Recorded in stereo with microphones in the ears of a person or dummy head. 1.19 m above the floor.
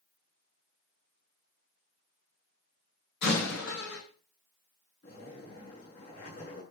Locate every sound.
3.2 s a door slam: 60° left (ahead or behind), 6.5 m
5.0 s a zipper: 45° left (ahead or behind), 6.5 m